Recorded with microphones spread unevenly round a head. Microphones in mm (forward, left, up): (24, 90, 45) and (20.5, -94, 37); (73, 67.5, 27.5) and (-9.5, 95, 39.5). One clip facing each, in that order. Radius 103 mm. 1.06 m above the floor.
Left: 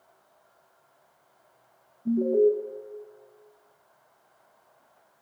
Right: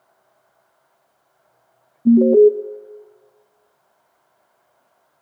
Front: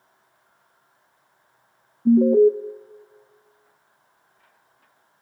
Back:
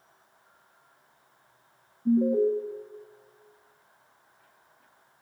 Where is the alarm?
70° right, 0.6 m.